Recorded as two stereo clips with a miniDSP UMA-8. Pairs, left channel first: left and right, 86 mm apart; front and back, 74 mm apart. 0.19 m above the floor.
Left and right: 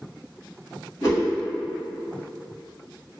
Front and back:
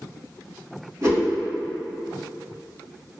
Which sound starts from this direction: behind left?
A whoosh, at 1.0 s.